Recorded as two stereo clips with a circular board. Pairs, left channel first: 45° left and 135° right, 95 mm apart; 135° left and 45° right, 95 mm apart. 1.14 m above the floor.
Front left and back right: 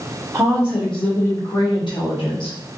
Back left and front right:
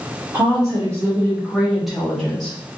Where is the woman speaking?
80° right, 0.8 m; by 2.6 s 55° left, 1.4 m.